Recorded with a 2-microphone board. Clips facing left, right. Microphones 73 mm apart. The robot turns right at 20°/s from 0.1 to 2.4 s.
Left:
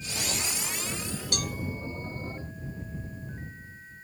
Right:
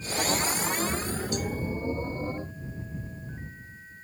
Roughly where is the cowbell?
Left.